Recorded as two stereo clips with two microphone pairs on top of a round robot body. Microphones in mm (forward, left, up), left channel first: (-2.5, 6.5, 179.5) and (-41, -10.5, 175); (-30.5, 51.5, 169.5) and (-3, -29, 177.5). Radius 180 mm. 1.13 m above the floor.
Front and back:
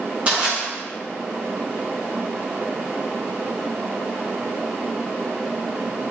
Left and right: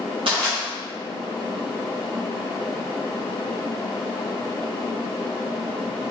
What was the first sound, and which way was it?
Crushing, 90° right.